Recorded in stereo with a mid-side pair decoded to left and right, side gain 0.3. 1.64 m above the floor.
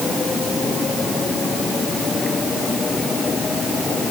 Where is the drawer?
I don't hear a drawer.